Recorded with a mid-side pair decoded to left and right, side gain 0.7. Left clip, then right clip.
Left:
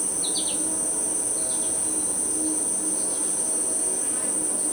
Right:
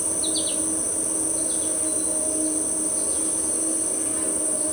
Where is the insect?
20° right, 2.0 m.